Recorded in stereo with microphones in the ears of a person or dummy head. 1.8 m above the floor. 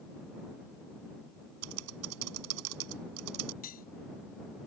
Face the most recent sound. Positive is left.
turn(degrees=45)  # may be behind; listen again after turning